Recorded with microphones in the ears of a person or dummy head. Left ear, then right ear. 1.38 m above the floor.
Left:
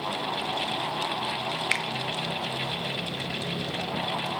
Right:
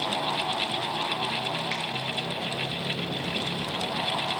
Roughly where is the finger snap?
Left.